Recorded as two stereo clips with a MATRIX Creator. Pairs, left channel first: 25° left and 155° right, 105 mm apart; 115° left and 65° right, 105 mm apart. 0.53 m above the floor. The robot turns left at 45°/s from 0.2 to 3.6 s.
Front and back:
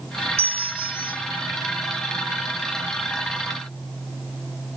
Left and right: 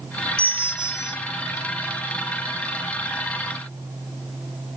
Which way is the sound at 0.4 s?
165° right.